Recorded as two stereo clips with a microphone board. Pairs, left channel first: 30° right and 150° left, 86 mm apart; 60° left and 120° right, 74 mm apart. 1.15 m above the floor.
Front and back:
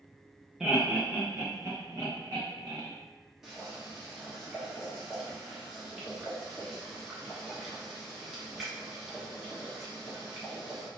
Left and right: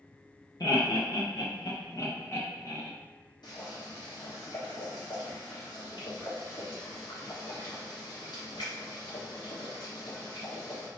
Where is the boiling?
65° left, 1.1 m.